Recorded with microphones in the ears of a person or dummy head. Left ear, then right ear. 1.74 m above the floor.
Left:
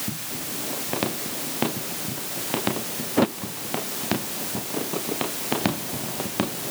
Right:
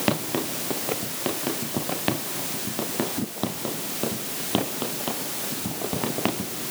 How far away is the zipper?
I don't hear a zipper.